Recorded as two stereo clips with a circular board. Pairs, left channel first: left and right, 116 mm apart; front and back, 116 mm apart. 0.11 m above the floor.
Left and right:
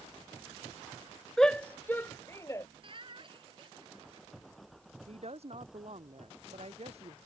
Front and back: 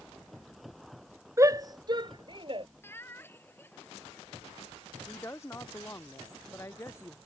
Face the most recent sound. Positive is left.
turn(degrees=-65)